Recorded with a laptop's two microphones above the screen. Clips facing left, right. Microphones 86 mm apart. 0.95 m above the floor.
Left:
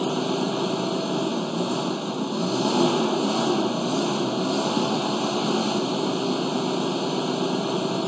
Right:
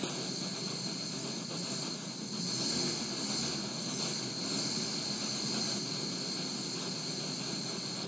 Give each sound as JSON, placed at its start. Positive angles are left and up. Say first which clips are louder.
{"t": 0.0, "sound": "an engine running", "louder": "left 16 dB", "side_deg": 85}